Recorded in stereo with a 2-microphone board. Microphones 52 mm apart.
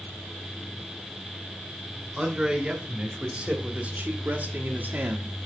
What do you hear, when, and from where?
2.2 s a man speaking: 10° right (ahead or behind), 2.5 m; by 5.3 s 40° right (ahead or behind), 1.5 m